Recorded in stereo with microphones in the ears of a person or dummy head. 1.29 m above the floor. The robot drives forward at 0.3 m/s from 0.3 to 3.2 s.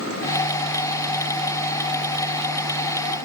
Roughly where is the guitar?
No guitar in this recording.